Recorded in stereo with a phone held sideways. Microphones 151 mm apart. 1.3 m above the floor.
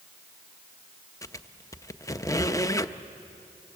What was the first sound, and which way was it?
A squeak, 20° left (ahead or behind).